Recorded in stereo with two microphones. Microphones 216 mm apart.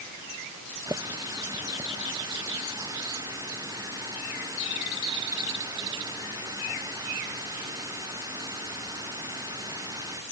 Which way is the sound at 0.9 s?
15° right (ahead or behind).